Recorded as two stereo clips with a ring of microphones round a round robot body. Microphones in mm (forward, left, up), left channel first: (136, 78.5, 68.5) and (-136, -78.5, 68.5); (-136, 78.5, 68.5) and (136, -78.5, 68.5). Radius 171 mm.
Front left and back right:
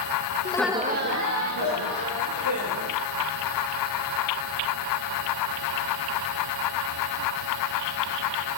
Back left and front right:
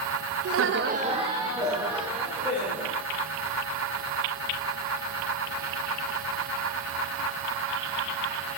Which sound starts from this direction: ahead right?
Laughter, at 0.5 s.